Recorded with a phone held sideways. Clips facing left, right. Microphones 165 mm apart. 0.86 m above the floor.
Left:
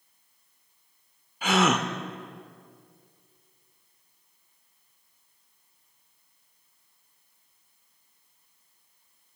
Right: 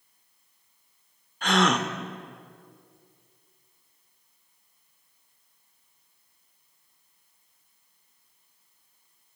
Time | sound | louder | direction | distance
1.4 | a gasp | even | 5° left (ahead or behind) | 0.5 m